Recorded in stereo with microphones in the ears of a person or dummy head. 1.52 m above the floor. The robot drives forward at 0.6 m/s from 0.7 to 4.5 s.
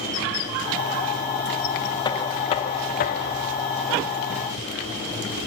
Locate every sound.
2.0 s knocking: 25° left (ahead or behind), 0.8 m